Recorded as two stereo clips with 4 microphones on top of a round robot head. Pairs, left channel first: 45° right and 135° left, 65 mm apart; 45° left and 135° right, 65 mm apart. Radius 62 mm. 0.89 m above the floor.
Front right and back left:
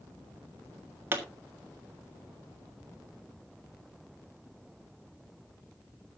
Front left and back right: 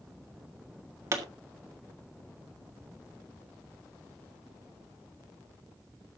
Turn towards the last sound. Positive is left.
turn(degrees=-170)